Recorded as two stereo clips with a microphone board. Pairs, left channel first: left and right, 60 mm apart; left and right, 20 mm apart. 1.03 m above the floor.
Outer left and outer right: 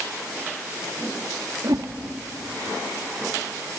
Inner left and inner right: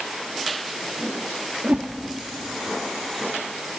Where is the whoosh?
80° right, 1.8 m.